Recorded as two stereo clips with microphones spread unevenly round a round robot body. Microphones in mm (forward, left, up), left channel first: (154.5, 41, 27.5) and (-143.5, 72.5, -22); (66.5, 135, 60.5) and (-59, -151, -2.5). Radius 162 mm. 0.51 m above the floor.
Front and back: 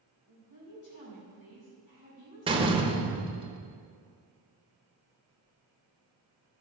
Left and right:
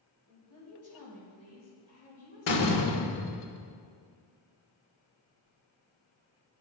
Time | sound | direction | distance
0.3 | a woman speaking | 15° left | 3 m
2.5 | a door slam | 105° left | 1.1 m